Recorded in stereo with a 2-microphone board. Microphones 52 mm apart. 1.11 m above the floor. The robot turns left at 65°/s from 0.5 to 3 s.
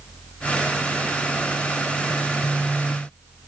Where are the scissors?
No scissors in this recording.